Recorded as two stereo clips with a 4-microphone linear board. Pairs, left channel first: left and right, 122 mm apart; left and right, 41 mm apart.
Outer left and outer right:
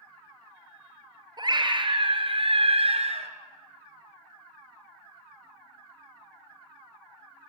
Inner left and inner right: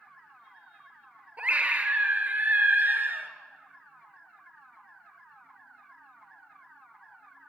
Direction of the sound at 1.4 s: 35° right (ahead or behind).